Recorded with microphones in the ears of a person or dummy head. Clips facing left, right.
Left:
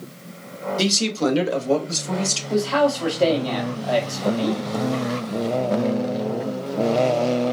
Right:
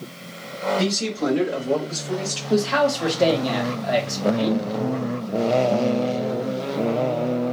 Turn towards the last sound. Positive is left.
turn(degrees=-15)  # may be behind; listen again after turning